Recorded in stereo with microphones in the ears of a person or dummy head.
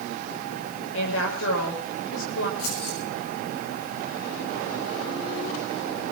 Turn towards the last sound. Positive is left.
turn(degrees=90)